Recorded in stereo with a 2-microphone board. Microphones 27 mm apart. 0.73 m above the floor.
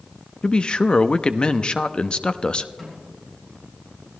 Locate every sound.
0.4 s a man speaking: 35° left (ahead or behind), 0.6 m
2.8 s a snare drum: 15° left (ahead or behind), 8.5 m